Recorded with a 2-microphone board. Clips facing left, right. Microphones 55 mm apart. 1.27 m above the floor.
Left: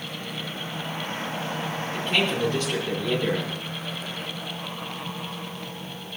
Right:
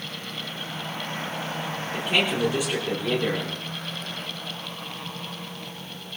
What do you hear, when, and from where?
1.9 s a man speaking: 15° right (ahead or behind), 3.5 m